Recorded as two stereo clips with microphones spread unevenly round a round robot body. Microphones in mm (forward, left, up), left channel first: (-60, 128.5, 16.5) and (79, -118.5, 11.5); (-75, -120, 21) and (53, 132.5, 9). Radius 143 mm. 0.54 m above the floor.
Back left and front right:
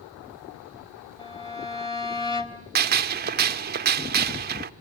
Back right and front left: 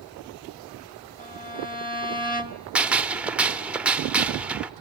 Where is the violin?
165° right, 1.7 m.